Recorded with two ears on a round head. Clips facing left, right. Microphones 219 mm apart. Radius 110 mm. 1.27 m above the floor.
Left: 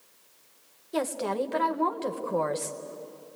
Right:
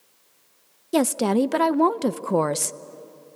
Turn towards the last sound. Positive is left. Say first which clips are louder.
# right 9 dB
turn(degrees=-65)  # may be behind; listen again after turning